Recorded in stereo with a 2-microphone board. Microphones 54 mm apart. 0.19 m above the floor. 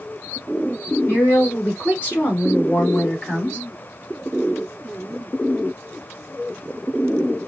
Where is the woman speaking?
40° left (ahead or behind), 2.5 m; by 3.6 s 20° left (ahead or behind), 1.5 m.